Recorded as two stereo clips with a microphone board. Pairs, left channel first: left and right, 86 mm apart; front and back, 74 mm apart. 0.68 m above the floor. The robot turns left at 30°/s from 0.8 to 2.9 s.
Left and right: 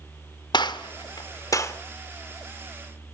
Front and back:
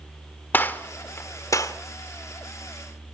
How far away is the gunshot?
About 1.3 m.